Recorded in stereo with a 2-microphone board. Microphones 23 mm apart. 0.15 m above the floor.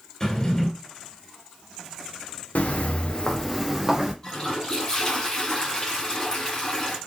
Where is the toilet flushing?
20° left (ahead or behind), 1.8 m.